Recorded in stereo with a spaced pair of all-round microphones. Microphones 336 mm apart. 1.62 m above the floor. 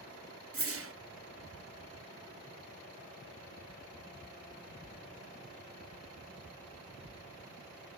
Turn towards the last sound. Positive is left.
turn(degrees=-45)  # may be behind; listen again after turning